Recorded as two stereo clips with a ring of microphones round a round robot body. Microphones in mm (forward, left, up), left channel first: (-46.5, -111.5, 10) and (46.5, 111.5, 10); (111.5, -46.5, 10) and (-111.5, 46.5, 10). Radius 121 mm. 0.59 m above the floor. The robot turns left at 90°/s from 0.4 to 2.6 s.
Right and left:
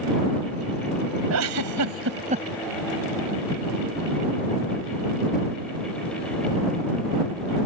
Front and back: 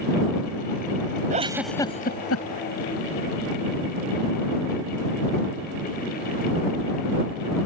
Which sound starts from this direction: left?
A giggle, at 1.3 s.